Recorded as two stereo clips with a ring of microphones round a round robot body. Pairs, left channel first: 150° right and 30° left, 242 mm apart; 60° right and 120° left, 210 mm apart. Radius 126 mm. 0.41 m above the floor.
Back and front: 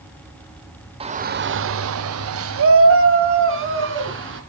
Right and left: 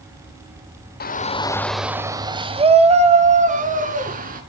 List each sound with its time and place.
1.0 s a shout: 35° right, 1.3 m; by 4.4 s 70° left, 5 m